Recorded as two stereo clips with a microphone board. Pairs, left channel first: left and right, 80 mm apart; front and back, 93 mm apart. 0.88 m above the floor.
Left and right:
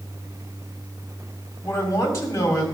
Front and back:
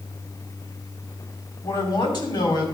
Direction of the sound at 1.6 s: 35° left.